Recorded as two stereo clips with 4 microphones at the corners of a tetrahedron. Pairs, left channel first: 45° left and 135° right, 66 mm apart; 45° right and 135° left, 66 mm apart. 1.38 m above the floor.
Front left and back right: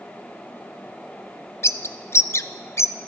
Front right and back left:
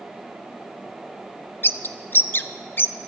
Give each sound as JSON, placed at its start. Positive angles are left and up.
{"t": 1.6, "sound": "a bird", "azimuth_deg": 5, "distance_m": 0.8}